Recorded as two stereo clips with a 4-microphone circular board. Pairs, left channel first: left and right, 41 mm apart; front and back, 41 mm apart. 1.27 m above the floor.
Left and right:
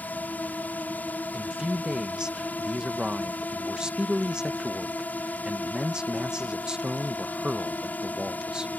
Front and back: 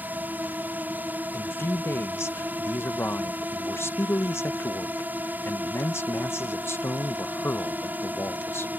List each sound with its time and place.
0.0 s a drone: 135° left
1.3 s a man speaking: 15° right